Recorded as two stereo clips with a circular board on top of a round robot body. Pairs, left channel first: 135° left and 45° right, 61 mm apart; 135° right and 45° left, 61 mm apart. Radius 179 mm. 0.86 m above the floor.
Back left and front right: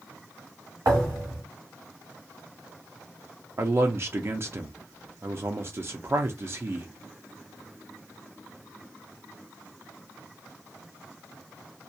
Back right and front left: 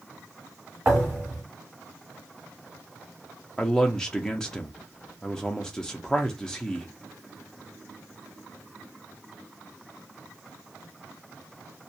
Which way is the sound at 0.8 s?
20° right.